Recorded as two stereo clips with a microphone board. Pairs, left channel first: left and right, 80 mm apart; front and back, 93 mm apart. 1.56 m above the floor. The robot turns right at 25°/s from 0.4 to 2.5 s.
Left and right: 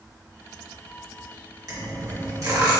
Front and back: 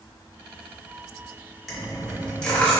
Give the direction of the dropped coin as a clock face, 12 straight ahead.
3 o'clock.